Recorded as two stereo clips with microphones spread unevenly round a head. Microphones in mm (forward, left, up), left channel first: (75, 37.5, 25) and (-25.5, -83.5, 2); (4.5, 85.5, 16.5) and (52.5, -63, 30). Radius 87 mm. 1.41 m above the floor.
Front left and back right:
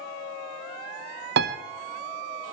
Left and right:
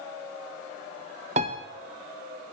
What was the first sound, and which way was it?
A piano, 120° right.